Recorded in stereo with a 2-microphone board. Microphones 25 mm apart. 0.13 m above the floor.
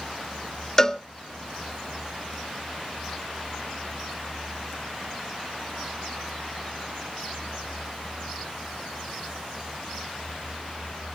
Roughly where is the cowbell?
Centre.